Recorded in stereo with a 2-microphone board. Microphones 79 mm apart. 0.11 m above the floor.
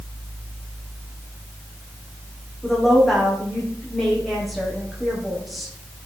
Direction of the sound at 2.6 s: Centre (ahead or behind).